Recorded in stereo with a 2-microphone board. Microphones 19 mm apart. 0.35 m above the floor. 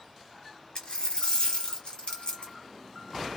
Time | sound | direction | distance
0.8 | a dropped coin | 60° left (ahead or behind) | 1.0 m